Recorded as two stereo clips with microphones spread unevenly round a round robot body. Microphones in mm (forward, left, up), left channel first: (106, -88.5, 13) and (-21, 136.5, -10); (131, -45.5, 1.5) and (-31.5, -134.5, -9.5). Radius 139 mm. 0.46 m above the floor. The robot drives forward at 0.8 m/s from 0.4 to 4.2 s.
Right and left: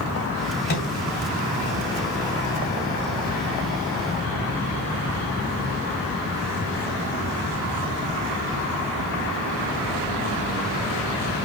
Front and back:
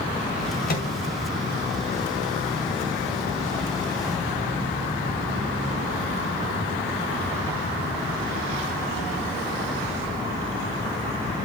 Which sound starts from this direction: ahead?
A microwave, at 0.7 s.